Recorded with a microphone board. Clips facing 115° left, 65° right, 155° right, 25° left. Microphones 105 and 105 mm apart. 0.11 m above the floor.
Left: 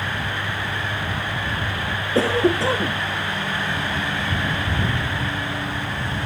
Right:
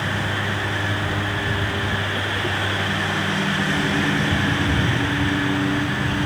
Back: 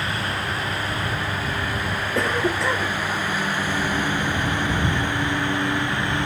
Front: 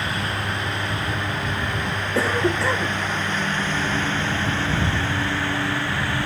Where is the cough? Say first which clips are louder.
Left 7 dB, front 2 dB; 110° left.